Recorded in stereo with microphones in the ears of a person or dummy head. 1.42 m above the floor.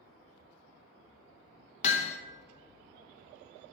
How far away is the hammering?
About 1.0 m.